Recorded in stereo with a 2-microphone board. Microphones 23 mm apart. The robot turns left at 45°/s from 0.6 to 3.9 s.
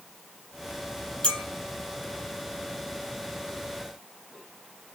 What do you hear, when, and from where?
1.2 s a clink: 45° left (ahead or behind), 2.5 m; by 1.4 s 40° left (ahead or behind), 2.5 m